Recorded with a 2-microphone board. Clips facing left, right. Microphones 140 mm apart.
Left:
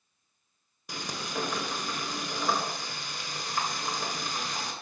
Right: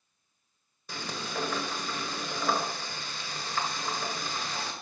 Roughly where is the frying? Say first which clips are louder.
Even; centre.